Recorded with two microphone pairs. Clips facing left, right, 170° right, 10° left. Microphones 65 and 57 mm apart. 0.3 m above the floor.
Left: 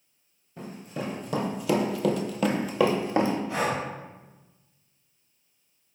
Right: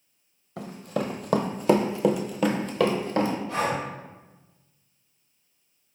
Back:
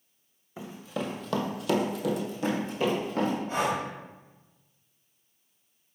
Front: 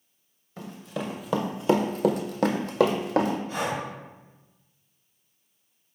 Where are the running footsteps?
90° right, 0.8 m; by 3.4 s 20° left, 1.0 m.